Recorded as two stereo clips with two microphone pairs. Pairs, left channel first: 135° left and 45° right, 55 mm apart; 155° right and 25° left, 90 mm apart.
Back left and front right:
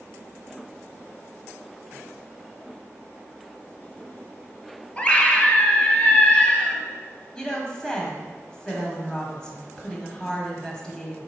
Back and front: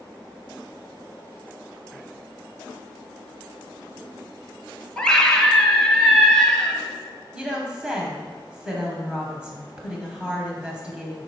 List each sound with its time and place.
5.0 s a scream: 140° left, 1.0 m
7.3 s a woman speaking: 85° left, 1.1 m